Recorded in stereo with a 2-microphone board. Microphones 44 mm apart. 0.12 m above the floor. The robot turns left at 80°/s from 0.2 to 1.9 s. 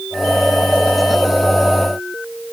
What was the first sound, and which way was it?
Only background noise.